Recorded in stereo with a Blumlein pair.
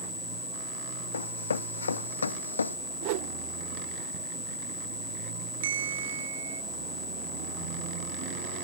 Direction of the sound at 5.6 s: 60° right.